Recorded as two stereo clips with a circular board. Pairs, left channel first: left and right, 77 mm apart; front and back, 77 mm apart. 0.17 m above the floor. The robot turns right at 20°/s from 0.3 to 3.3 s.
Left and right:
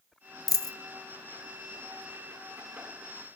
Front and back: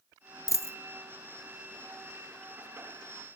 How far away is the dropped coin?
About 0.5 m.